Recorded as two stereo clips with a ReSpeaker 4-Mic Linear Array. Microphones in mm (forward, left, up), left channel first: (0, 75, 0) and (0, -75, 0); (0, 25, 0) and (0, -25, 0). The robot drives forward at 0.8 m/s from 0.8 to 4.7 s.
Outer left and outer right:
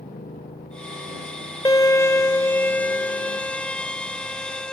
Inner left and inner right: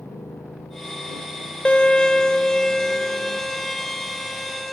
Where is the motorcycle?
85° left; by 4.7 s 60° left (ahead or behind).